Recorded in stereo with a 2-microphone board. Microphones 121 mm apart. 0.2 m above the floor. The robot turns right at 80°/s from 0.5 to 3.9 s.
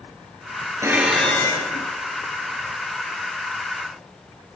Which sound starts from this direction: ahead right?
Dishes clattering, at 0.8 s.